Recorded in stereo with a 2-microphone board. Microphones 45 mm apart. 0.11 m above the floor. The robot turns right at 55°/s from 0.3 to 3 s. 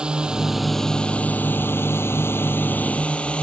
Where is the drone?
20° right (ahead or behind); by 3.4 s 25° left (ahead or behind).